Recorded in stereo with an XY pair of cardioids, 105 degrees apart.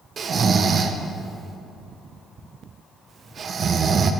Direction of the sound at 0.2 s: 45° right.